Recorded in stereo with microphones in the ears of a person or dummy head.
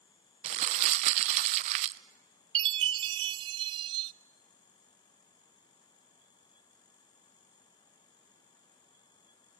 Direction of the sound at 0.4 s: 35° right (ahead or behind).